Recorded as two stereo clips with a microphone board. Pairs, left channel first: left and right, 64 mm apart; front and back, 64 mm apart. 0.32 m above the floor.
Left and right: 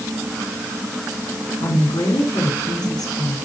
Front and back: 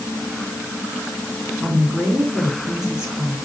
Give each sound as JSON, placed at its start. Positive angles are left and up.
{"t": 1.6, "sound": "a woman speaking", "azimuth_deg": 100, "distance_m": 5.0}